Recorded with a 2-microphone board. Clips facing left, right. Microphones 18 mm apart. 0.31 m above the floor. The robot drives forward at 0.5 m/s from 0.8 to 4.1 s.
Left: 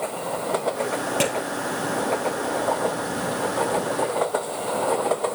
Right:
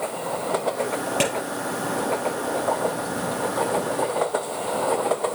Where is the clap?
10° right (ahead or behind), 6.5 m.